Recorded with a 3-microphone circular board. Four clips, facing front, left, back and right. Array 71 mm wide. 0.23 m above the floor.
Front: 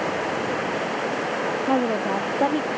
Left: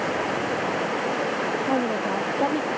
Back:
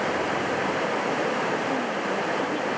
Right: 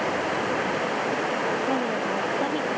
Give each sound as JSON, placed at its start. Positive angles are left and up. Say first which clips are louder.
{"t": 1.7, "sound": "a woman speaking", "louder": "left 1 dB, front 5 dB", "azimuth_deg": 20}